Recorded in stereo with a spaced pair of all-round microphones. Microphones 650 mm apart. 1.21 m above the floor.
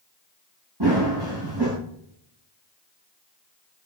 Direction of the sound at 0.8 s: 35° right (ahead or behind).